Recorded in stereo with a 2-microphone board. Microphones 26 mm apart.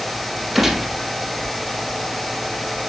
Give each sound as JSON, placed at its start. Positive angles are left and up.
{"t": 0.6, "sound": "a gunshot", "side_deg": -10, "distance_m": 4.5}